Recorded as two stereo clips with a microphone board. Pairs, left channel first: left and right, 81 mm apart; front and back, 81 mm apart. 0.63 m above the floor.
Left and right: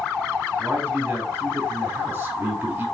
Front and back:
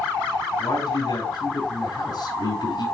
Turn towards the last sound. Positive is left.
turn(degrees=-20)